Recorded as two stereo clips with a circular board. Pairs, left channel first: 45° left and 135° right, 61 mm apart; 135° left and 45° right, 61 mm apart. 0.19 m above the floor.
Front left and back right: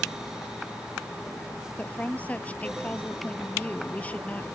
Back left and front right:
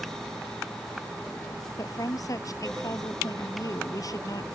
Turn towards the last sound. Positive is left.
turn(degrees=110)